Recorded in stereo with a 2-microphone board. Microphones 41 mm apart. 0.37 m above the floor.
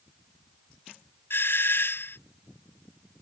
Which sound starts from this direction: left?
A doorbell, at 1.3 s.